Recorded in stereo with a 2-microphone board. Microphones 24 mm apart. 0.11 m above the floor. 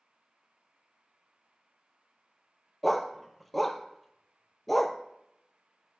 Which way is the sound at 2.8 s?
5° left (ahead or behind).